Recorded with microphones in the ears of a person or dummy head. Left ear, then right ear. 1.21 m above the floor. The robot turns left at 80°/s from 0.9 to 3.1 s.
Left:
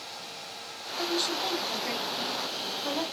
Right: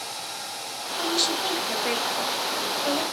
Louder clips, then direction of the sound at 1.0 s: Right 4 dB; 20° right.